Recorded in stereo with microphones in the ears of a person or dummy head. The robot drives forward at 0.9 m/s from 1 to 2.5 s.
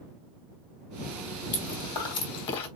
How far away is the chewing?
About 3.5 m.